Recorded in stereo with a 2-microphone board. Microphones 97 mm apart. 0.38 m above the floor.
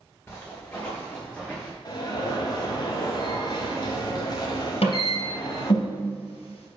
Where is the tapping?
85° left, 2.5 m.